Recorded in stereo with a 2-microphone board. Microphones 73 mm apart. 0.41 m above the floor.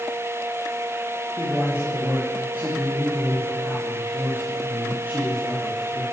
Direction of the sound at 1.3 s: 30° right (ahead or behind).